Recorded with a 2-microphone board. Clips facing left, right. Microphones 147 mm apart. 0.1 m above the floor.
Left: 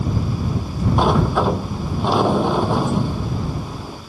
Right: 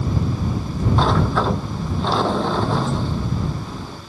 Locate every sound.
1.0 s a sliding door: 15° left (ahead or behind)